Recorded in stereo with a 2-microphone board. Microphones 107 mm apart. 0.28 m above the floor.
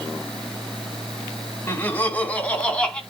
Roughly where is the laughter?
Centre.